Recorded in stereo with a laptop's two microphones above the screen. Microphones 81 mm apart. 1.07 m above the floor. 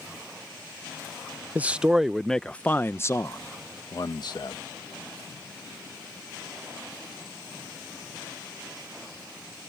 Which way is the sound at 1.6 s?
20° right (ahead or behind).